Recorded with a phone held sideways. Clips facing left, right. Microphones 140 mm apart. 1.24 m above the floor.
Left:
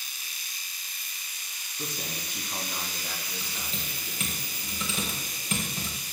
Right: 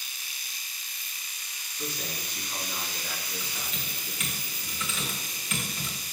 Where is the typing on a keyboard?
35° left (ahead or behind), 3.5 m.